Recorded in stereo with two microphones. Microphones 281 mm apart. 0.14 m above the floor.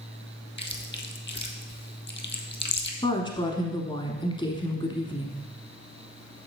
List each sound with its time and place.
0.6 s chewing: 40° left (ahead or behind), 0.8 m
3.0 s a woman speaking: 15° left (ahead or behind), 1.1 m